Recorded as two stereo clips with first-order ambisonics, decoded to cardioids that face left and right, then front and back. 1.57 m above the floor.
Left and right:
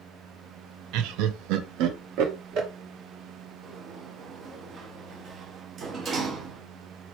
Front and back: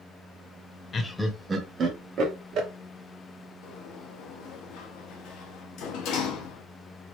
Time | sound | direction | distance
0.9 | laughter | 65° right | 0.6 m
3.6 | a sliding door | 30° right | 0.8 m